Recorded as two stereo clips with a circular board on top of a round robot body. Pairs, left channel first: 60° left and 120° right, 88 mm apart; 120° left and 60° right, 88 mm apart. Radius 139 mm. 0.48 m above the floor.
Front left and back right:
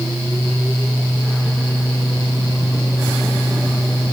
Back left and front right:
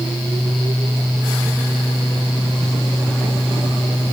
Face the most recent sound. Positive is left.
No sound to turn to.